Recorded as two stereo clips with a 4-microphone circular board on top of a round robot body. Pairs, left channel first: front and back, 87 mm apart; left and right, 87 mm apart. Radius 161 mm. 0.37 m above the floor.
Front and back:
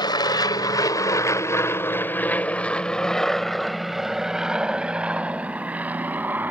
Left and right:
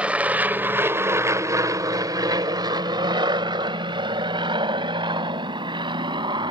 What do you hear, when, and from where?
0.0 s an aircraft: 15° right; by 6.5 s 110° right